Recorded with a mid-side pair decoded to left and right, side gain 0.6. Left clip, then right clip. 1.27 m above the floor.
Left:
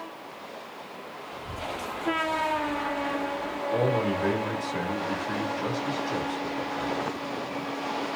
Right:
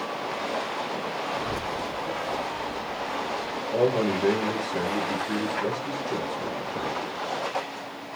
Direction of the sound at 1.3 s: 70° right.